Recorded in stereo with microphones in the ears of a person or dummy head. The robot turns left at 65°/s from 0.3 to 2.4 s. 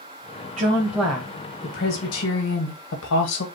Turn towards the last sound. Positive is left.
turn(degrees=95)